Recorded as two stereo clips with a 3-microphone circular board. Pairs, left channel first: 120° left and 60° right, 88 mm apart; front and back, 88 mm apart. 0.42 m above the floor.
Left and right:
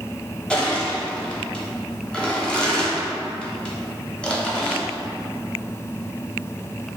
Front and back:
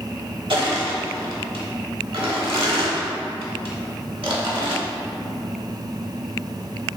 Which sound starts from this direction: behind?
Crushing, at 0.5 s.